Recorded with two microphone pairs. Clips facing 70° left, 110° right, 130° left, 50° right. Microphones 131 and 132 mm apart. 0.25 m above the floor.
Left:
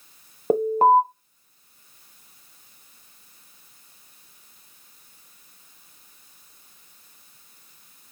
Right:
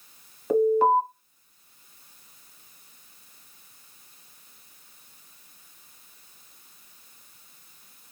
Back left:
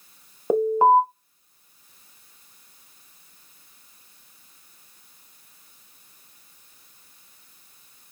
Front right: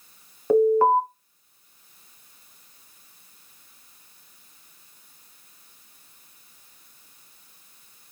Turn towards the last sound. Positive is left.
turn(degrees=75)